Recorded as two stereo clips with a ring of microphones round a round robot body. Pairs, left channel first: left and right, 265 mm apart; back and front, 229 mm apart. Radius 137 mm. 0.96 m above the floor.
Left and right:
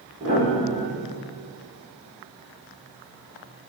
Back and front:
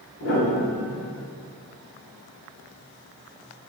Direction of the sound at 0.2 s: 155° right.